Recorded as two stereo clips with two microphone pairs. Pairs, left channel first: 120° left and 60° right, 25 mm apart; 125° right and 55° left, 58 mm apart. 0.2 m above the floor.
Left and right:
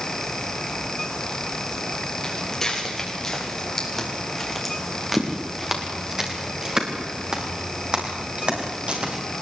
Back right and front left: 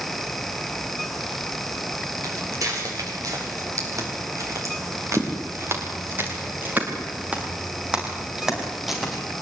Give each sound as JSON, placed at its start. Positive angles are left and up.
{"t": 2.2, "sound": "footsteps", "azimuth_deg": 50, "distance_m": 8.0}